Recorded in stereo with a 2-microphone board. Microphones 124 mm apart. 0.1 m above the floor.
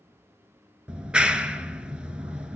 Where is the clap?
5° right (ahead or behind), 1.0 m.